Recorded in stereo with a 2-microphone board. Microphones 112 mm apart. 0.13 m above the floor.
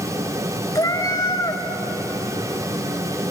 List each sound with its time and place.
0.8 s a cat meowing: 35° left (ahead or behind), 0.8 m